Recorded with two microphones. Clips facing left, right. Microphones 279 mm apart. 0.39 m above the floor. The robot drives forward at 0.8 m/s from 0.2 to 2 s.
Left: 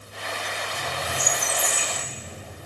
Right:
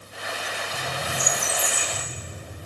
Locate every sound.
0.7 s a squeak: 10° right (ahead or behind), 3 m